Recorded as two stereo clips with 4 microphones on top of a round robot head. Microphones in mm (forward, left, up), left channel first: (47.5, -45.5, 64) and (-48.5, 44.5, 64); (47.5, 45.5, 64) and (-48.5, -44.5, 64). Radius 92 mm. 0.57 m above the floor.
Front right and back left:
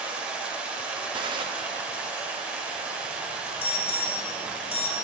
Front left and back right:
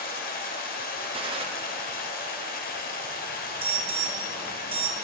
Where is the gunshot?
175° right, 1.0 m.